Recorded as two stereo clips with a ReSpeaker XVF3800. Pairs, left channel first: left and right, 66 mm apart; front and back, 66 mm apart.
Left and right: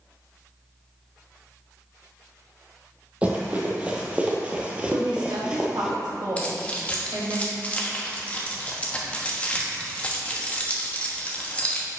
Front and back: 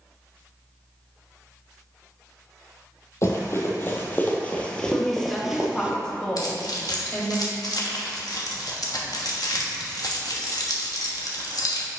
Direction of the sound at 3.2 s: 25° right.